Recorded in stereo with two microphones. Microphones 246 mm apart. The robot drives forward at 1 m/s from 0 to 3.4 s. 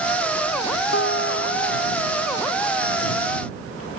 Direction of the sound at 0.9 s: 55° left (ahead or behind).